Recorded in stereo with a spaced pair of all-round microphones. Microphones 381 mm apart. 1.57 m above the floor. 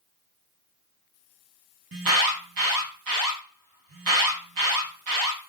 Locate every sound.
1.9 s an alarm: 65° right (ahead or behind), 0.6 m